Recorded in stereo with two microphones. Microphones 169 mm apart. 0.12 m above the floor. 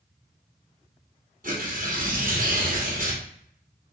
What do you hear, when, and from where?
1.4 s tearing paper: 60° right (ahead or behind), 1.9 m